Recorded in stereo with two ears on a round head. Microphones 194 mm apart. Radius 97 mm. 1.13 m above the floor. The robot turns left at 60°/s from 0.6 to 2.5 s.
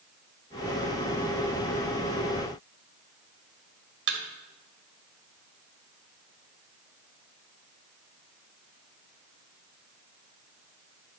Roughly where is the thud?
Right.